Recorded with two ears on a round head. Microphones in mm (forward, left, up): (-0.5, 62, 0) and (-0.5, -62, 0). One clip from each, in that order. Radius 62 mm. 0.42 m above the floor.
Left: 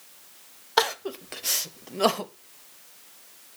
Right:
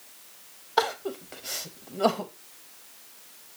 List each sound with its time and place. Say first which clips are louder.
0.8 s crying: left 2 dB; 50° left (ahead or behind), 0.5 m